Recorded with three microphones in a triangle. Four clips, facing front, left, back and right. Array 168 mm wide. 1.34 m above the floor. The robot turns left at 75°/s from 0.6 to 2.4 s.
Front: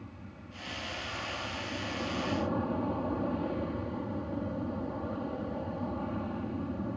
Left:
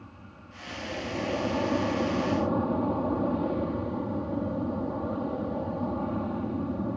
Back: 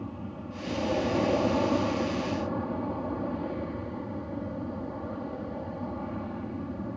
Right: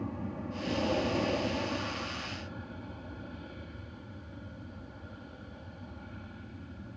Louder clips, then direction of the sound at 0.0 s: Right 11 dB, back 10 dB; 135° right.